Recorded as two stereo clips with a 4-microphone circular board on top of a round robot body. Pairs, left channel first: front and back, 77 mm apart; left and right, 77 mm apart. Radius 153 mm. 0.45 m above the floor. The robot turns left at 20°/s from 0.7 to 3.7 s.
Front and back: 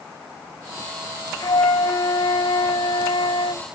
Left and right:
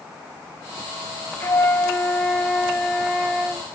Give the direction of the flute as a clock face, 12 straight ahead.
11 o'clock.